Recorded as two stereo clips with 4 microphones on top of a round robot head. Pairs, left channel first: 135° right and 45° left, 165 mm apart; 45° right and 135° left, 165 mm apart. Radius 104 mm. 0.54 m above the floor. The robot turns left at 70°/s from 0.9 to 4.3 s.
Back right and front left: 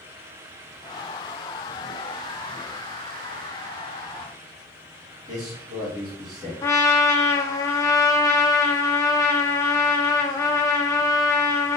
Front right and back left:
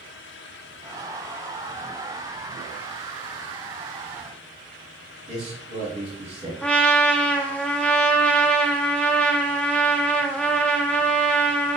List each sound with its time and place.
5.3 s a man speaking: 100° left, 1.5 m
6.6 s a trumpet: 110° right, 0.7 m